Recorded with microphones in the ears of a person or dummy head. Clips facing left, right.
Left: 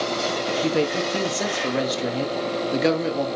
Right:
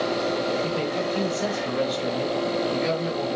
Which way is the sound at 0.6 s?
70° left (ahead or behind).